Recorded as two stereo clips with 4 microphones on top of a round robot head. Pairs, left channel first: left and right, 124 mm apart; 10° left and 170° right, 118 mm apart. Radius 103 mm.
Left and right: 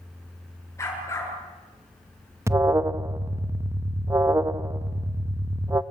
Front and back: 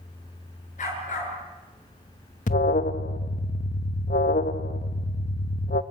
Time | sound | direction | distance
0.8 | a dog barking | 20° left | 7.5 m
2.5 | an alarm | 20° right | 0.8 m